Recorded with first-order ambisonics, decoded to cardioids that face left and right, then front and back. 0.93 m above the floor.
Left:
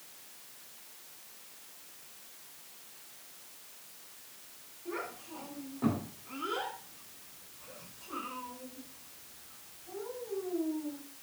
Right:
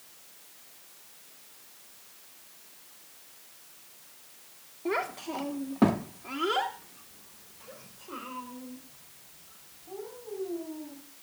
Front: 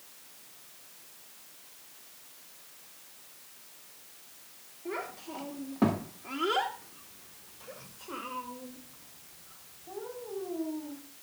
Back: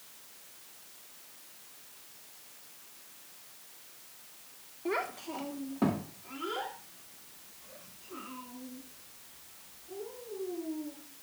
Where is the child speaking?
115° right, 1.6 m; by 11.0 s 10° right, 5.5 m.